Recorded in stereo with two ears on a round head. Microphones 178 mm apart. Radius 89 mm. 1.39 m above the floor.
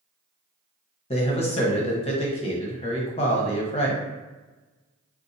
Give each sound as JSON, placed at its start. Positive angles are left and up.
{"t": 1.1, "sound": "a man speaking", "side_deg": 30, "distance_m": 0.9}